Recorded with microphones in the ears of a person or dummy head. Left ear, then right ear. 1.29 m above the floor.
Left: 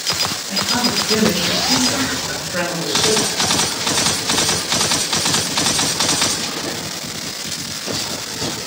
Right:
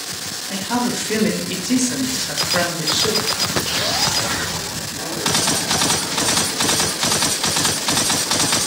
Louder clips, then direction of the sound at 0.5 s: Left 1 dB; 20° right (ahead or behind).